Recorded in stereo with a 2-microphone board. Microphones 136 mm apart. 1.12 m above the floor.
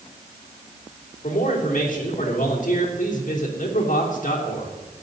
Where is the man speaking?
70° left (ahead or behind), 3.5 m.